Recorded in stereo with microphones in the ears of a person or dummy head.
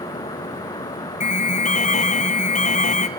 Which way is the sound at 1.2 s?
35° left (ahead or behind).